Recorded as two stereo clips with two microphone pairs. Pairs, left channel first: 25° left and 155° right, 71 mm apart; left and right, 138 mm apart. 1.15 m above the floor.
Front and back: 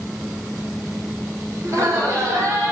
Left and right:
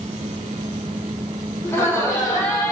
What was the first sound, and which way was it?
Laughter, 165° left.